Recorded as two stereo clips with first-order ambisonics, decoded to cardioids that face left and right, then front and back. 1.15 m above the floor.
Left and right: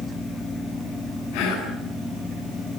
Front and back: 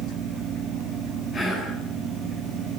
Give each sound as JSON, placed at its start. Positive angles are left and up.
{"t": 1.3, "sound": "whispering", "azimuth_deg": 70, "distance_m": 9.5}